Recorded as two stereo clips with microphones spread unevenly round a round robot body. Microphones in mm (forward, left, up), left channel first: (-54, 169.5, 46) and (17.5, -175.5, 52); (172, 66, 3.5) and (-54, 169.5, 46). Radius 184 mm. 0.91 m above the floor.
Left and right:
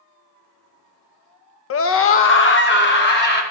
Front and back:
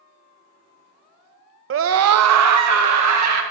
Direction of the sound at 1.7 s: 130° left.